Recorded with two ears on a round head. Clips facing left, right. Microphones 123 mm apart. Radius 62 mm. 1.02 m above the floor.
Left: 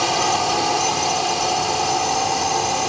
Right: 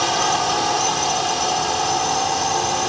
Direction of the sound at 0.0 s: 5° left (ahead or behind).